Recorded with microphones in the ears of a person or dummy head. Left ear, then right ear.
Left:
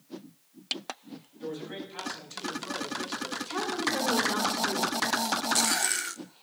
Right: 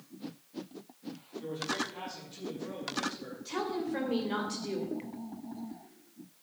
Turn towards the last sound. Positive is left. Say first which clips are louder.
# left 3 dB
turn(degrees=25)  # may be behind; listen again after turning